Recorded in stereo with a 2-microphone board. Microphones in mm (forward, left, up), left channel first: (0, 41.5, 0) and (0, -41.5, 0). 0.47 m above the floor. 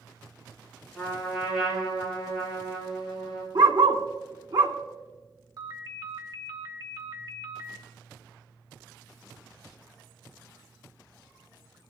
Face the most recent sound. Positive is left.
turn(degrees=-45)  # may be behind; listen again after turning